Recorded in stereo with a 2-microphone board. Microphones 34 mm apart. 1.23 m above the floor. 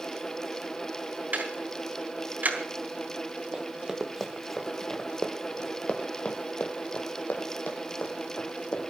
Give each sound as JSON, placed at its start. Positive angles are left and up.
{"t": 1.3, "sound": "ticking", "side_deg": -60, "distance_m": 3.5}
{"t": 3.5, "sound": "running footsteps", "side_deg": -30, "distance_m": 1.9}